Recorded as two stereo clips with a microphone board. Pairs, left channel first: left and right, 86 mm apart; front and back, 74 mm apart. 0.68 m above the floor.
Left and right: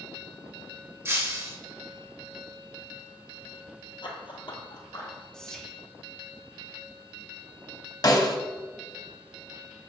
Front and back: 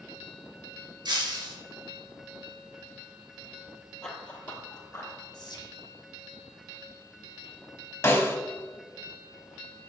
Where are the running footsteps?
85° left, 1.2 m; by 5.2 s 45° left, 1.6 m.